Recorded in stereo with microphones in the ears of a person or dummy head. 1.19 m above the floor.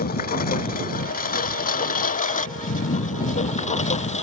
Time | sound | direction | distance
0.0 | a lawn mower | 45° left (ahead or behind) | ?